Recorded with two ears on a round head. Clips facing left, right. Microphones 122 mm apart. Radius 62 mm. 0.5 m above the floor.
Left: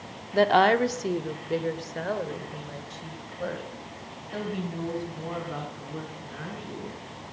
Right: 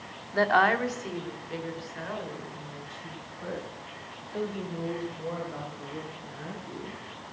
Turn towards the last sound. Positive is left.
turn(degrees=65)  # may be behind; listen again after turning